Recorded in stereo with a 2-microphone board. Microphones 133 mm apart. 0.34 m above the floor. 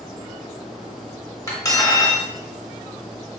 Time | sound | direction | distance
1.5 | cutlery clinking | 25° left (ahead or behind) | 0.8 m